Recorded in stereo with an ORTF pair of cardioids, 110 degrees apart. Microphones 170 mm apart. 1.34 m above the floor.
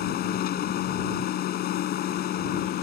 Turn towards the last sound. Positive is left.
turn(degrees=65)